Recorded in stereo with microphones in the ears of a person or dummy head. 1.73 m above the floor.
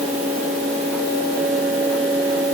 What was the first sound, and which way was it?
Only background noise.